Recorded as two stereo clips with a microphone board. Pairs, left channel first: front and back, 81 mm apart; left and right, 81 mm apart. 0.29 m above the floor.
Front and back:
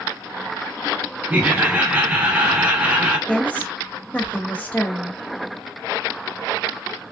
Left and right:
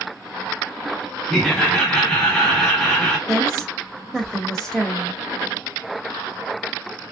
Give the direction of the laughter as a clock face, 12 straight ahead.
7 o'clock.